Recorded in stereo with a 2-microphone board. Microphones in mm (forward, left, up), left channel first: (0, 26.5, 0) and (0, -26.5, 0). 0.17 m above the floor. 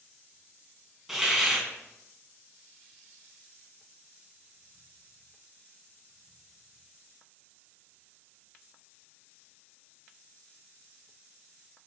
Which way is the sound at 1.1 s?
5° right (ahead or behind).